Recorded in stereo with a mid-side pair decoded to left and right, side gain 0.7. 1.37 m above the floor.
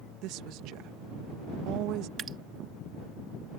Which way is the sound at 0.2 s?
60° right.